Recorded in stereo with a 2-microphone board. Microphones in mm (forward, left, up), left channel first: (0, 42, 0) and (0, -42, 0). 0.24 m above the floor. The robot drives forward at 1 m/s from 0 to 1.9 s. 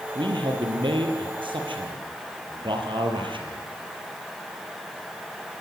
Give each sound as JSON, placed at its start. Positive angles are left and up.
{"t": 0.1, "sound": "a man speaking", "side_deg": -75, "distance_m": 6.0}